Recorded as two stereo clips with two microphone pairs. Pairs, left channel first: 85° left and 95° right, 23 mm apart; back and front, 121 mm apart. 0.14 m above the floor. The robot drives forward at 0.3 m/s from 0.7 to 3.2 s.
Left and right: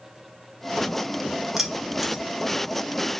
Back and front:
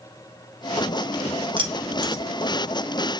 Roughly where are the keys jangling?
Ahead.